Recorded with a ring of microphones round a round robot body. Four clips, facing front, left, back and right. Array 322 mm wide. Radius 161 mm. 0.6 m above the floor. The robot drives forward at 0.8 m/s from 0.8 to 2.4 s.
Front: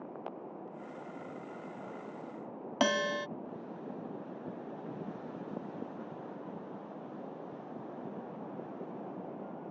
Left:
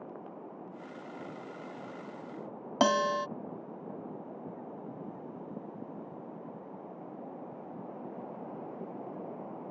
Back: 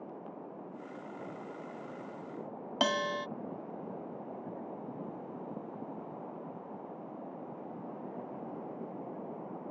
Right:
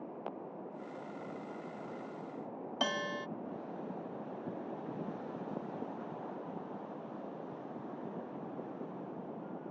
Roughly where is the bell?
Left.